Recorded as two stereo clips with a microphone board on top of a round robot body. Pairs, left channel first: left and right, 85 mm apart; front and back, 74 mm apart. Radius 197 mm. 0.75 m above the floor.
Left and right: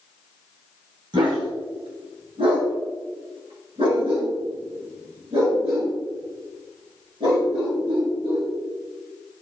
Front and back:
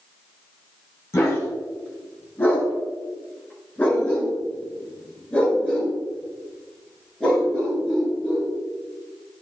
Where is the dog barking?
55° right, 2 m; by 8.5 s 80° right, 6.5 m.